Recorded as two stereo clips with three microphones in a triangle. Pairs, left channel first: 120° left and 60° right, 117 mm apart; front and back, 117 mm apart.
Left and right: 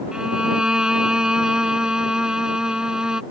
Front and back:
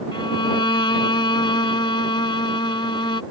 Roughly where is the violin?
Ahead.